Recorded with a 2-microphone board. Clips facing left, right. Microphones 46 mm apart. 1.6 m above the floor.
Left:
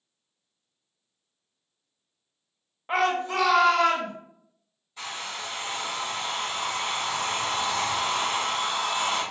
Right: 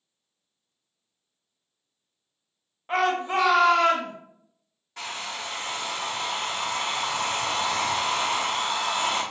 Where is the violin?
No violin in this recording.